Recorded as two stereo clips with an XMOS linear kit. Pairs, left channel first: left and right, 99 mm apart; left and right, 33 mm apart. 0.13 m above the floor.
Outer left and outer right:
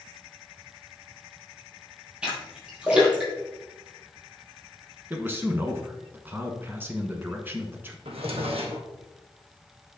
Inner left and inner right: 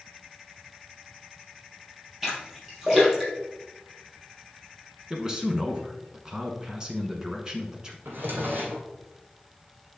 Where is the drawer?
80° right, 1.7 m.